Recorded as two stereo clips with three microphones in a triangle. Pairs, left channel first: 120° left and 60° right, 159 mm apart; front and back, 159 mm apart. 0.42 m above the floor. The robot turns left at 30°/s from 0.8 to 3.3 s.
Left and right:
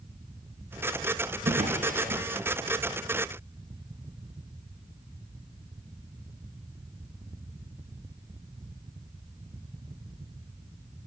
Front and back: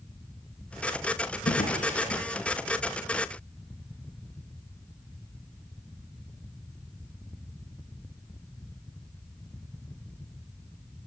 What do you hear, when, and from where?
1.4 s a drawer: 25° right, 5.5 m; by 2.2 s 45° right, 5.5 m